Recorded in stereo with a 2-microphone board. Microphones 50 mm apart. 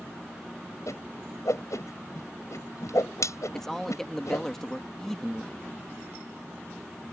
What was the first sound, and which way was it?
A whoosh, 80° left.